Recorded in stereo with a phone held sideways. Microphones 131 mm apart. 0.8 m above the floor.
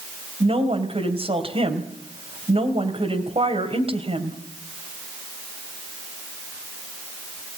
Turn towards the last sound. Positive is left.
turn(degrees=-45)  # may be behind; listen again after turning